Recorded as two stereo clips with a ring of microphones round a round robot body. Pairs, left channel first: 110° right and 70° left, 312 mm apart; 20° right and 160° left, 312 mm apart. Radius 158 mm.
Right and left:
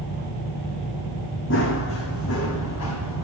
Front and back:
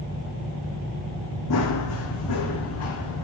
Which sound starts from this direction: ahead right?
Running footsteps, at 1.5 s.